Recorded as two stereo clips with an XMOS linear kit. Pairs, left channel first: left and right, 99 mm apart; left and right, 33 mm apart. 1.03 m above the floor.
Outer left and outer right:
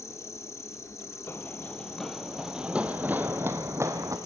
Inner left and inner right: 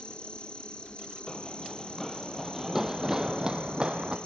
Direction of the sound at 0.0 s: 30° left (ahead or behind).